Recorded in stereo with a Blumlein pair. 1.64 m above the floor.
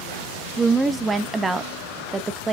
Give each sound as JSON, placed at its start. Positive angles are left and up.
{"t": 0.6, "sound": "a woman speaking", "azimuth_deg": -10, "distance_m": 0.5}